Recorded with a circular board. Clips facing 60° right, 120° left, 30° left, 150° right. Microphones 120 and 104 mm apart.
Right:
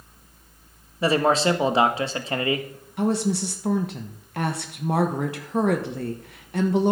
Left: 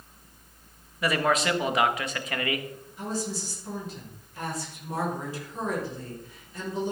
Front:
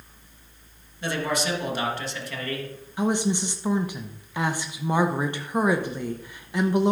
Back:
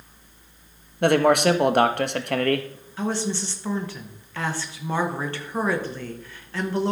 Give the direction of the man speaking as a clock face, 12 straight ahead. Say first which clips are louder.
Right 5 dB, back 10 dB; 4 o'clock.